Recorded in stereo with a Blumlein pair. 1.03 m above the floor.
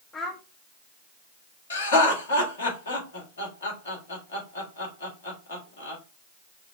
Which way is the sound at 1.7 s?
65° left.